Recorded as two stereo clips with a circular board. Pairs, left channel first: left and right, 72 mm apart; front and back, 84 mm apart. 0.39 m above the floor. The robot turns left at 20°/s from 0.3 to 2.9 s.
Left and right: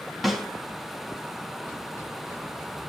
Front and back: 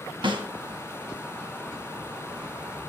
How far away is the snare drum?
About 3 m.